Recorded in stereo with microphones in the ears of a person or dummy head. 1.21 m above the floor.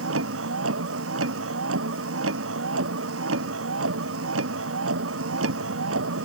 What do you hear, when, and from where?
0.0 s a vehicle: 85° right